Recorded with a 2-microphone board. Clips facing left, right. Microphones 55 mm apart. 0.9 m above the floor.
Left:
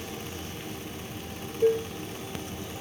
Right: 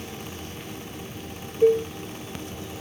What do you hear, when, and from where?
1.6 s dishes clattering: 35° right (ahead or behind), 1.5 m